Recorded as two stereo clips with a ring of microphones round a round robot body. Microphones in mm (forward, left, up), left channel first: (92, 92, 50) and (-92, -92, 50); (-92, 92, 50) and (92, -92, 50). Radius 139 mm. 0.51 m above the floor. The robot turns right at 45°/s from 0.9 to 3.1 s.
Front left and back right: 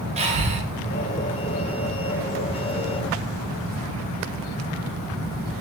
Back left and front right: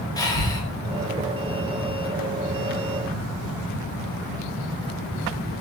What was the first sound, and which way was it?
Breathing, 165° right.